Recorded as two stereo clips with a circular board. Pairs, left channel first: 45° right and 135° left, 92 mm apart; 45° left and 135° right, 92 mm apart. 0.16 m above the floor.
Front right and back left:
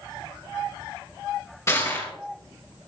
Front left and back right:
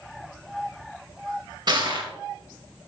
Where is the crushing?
100° right, 3 m.